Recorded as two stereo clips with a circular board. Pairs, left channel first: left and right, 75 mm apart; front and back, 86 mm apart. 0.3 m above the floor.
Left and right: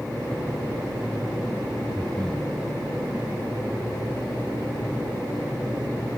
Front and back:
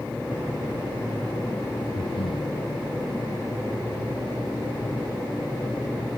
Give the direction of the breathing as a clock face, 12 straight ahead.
12 o'clock.